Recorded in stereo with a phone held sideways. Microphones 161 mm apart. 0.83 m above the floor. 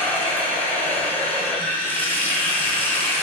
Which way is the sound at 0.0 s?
10° left (ahead or behind).